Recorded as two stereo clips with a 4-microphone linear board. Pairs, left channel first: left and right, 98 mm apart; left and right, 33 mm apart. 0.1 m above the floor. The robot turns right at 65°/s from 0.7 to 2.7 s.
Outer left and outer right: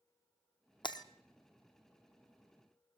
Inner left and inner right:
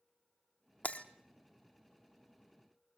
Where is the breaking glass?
55° left (ahead or behind), 1.3 m; by 1.1 s 40° left (ahead or behind), 1.3 m.